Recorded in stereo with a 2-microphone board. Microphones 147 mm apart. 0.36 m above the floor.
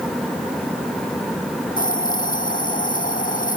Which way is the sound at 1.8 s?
70° left (ahead or behind).